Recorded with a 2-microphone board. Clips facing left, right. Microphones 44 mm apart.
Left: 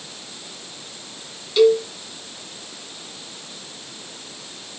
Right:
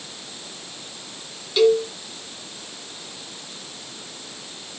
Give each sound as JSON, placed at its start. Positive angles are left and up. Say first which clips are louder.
{"t": 1.6, "sound": "a cowbell", "louder": "left 2 dB", "side_deg": 0, "distance_m": 3.5}